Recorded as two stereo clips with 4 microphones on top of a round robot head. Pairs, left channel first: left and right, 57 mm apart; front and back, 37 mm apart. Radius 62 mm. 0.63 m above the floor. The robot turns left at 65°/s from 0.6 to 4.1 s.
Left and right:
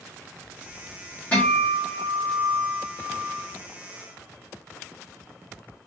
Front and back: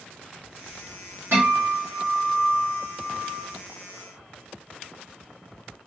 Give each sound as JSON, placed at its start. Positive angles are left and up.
{"t": 1.3, "sound": "a guitar", "azimuth_deg": 155, "distance_m": 2.0}